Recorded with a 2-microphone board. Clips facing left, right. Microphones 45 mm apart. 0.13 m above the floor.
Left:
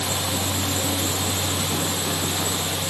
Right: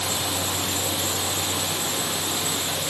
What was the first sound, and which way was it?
Only background noise.